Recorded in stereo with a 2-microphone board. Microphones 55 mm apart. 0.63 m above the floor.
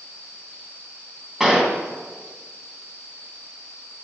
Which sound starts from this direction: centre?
A gunshot, at 1.4 s.